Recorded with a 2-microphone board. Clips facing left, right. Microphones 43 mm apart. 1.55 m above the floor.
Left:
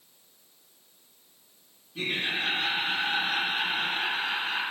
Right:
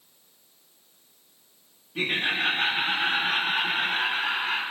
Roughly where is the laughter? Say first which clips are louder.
Right 4 dB; right.